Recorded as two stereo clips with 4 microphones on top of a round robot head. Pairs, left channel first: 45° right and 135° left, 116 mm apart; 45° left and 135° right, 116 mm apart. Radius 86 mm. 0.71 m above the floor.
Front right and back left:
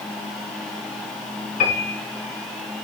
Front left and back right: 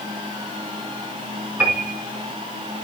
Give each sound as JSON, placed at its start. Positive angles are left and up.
{"t": 1.6, "sound": "a piano", "azimuth_deg": -55, "distance_m": 5.0}